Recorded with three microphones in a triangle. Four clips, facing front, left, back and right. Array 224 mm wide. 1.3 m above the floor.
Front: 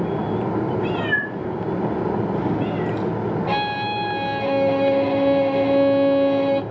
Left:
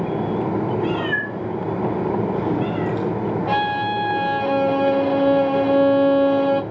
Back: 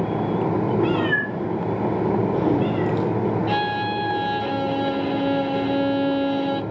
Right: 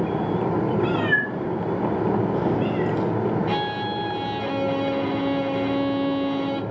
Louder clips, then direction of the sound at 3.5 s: Left 5 dB, even; 75° left.